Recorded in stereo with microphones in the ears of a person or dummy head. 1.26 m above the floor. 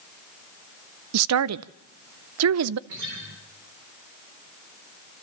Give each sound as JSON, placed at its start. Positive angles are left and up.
{"t": 1.1, "sound": "a woman speaking", "side_deg": -85, "distance_m": 0.5}
{"t": 2.9, "sound": "a guitar", "side_deg": -55, "distance_m": 5.0}